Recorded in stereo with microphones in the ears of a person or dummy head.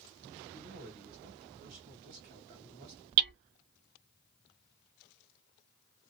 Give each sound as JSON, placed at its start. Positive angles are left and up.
{"t": 0.5, "sound": "a man speaking", "side_deg": -40, "distance_m": 1.6}
{"t": 3.2, "sound": "hammering", "side_deg": -55, "distance_m": 0.9}